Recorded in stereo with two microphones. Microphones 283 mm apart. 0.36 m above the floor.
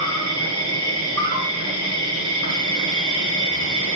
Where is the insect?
65° right (ahead or behind), 1.3 m.